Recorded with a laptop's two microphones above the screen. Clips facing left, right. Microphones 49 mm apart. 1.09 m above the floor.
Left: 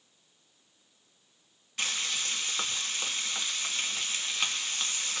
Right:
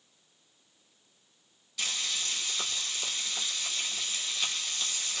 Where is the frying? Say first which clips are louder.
Left 2 dB; 45° left (ahead or behind), 2 m.